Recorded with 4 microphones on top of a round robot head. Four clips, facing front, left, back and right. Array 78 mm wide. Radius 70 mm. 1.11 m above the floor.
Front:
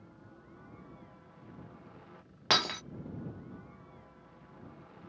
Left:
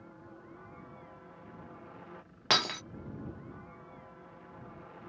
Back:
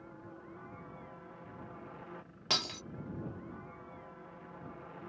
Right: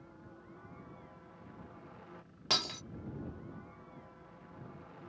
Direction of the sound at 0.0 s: 150° left.